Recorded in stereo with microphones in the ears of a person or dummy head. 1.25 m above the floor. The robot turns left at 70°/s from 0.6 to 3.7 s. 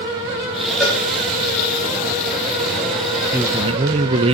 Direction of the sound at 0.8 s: Centre (ahead or behind).